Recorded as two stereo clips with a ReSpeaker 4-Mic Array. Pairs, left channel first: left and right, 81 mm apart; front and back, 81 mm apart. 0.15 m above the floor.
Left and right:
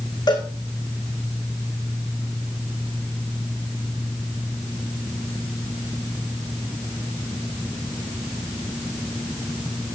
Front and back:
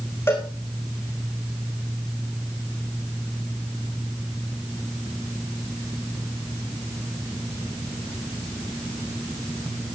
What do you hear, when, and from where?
0.3 s a cowbell: 60° left, 3.5 m